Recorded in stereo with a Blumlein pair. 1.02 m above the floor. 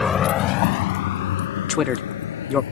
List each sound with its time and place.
0.0 s a vehicle: 15° left; by 2.7 s 65° left
1.7 s a man speaking: 25° left